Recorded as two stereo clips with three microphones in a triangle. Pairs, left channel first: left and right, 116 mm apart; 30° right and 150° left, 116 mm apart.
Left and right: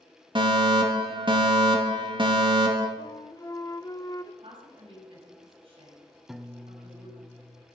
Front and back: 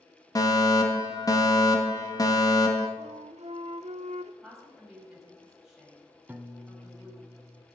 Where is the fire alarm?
75° right, 2 m.